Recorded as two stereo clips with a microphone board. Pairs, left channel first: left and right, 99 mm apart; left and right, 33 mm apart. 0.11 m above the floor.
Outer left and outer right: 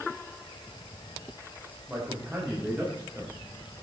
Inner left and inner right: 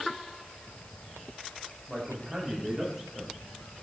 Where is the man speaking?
15° right (ahead or behind), 7.5 m; by 3.3 s 20° right (ahead or behind), 7.5 m.